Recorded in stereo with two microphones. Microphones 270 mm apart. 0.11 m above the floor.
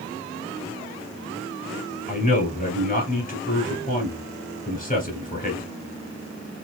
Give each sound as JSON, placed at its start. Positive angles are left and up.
{"t": 2.1, "sound": "a man speaking", "side_deg": 30, "distance_m": 1.8}